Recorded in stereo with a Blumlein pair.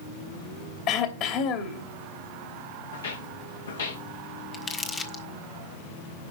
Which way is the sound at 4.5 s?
20° left.